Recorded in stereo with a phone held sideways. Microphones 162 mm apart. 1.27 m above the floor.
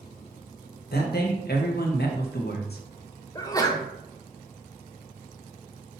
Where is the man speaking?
80° left, 0.9 m.